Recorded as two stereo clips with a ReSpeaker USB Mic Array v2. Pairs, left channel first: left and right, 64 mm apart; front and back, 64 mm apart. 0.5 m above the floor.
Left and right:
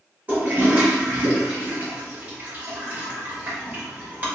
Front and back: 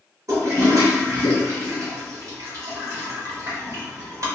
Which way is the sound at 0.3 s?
155° right.